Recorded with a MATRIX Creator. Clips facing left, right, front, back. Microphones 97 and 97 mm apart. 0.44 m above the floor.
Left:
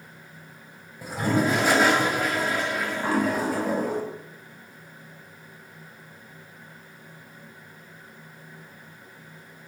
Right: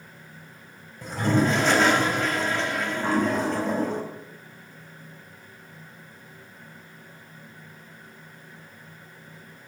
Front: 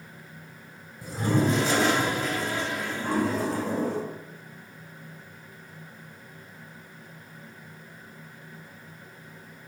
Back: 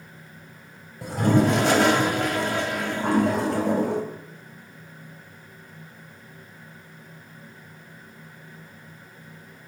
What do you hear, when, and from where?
1.0 s a toilet flushing: 170° left, 3 m